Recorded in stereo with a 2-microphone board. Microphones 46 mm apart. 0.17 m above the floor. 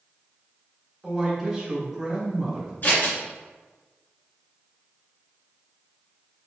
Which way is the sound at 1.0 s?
5° right (ahead or behind).